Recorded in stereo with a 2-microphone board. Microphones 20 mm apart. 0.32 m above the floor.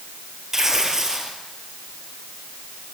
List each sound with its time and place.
0.5 s tearing paper: 20° right (ahead or behind), 3 m